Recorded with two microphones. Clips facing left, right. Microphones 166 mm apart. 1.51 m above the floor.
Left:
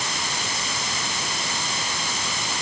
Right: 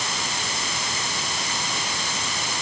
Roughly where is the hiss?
No hiss in this recording.